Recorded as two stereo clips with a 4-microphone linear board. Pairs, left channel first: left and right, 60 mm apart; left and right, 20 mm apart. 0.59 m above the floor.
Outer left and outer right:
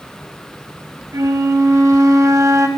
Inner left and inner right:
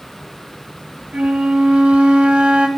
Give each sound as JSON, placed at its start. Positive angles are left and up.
{"t": 1.1, "sound": "a flute", "side_deg": -60, "distance_m": 0.8}